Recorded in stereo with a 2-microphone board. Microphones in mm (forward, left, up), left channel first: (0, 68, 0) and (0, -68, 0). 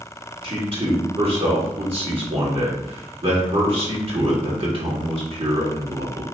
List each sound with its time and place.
0.4 s a man speaking: 45° right (ahead or behind), 1.8 m